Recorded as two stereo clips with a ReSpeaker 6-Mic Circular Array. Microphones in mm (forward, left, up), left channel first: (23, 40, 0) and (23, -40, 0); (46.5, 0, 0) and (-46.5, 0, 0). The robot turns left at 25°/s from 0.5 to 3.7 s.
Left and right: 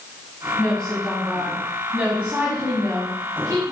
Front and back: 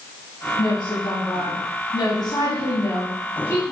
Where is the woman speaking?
20° left, 1.5 m; by 3.7 s 60° right, 1.5 m.